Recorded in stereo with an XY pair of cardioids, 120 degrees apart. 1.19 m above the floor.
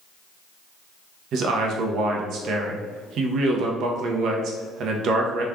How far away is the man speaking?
About 0.7 m.